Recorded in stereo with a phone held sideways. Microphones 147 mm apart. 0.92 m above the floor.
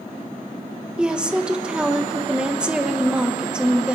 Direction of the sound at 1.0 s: 5° right (ahead or behind).